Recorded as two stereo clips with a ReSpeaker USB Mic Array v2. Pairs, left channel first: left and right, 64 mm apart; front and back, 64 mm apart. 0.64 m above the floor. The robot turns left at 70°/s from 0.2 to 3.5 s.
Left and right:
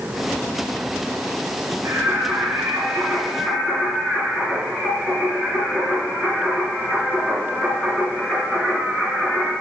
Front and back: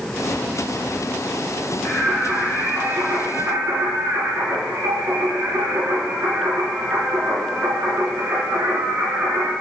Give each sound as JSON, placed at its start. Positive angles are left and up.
{"t": 1.9, "sound": "singing", "azimuth_deg": -85, "distance_m": 3.0}